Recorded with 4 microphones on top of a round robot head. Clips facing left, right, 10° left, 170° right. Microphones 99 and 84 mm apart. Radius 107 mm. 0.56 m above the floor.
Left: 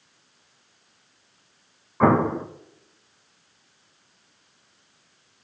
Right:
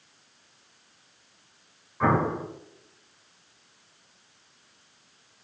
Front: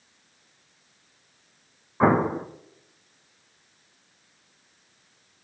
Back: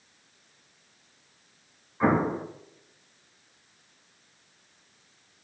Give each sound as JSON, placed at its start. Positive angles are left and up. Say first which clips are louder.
{"t": 2.0, "sound": "an explosion", "louder": "left 5 dB, front 3 dB", "azimuth_deg": 55, "distance_m": 0.6}